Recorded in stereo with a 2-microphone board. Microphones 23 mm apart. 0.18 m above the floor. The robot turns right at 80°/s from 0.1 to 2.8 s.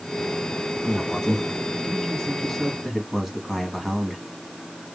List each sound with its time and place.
0.8 s a man speaking: 20° left (ahead or behind), 1.5 m; by 4.2 s 10° right (ahead or behind), 1.5 m